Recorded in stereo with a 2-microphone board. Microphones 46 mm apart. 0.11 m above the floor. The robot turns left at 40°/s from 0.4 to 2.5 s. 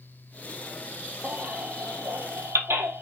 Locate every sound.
1.2 s a baby crying: 40° right (ahead or behind), 0.9 m; by 3.0 s 70° right (ahead or behind), 0.9 m